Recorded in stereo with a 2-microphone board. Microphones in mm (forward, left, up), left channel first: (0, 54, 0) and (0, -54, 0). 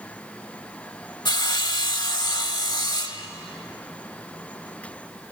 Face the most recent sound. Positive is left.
turn(degrees=40)  # may be behind; listen again after turning